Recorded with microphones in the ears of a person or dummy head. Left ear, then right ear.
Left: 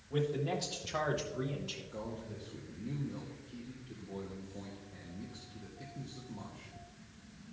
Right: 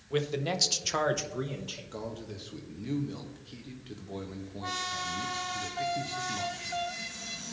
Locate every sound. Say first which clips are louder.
0.1 s a man speaking: right 4 dB; 65° right (ahead or behind), 1.2 m; by 1.8 s 25° right (ahead or behind), 1.1 m
1.9 s a man speaking: right 4 dB; 55° right (ahead or behind), 0.9 m